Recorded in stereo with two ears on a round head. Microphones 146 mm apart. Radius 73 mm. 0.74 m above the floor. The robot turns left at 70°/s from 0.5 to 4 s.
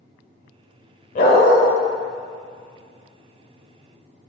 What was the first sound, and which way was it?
A dog barking, 50° left (ahead or behind).